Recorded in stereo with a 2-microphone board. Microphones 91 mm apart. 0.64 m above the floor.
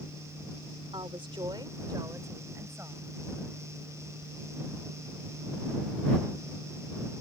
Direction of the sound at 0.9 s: 65° right (ahead or behind).